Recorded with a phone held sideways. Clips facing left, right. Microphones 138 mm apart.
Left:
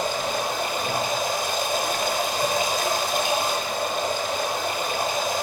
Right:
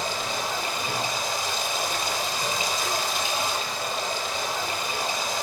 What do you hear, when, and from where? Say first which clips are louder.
0.0 s running water: left 4 dB; 60° left (ahead or behind), 3 m